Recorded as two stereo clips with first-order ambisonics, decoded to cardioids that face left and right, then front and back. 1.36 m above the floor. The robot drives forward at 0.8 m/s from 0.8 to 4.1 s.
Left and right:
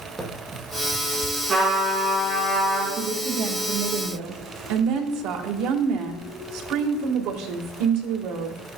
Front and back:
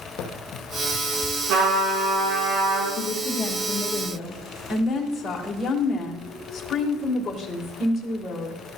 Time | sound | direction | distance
0.2 | running footsteps | 15° right | 2 m
1.5 | a trumpet | 155° right | 4.5 m
3.0 | a woman speaking | 45° right | 1.9 m